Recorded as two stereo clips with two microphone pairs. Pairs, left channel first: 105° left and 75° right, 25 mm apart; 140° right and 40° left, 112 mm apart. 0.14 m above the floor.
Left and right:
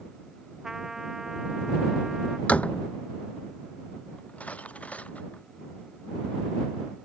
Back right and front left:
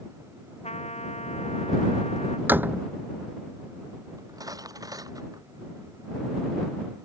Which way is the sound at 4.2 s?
95° left.